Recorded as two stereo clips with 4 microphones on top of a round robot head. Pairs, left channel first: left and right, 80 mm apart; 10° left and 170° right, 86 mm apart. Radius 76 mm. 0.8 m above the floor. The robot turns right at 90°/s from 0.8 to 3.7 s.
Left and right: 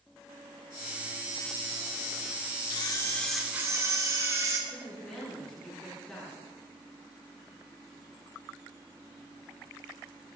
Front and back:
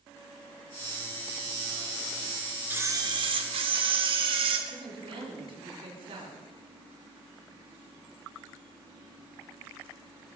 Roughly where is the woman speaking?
Behind.